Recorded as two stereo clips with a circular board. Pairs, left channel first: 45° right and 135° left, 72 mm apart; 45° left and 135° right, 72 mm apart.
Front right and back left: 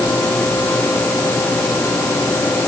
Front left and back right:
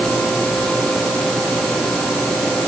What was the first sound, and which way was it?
Only background noise.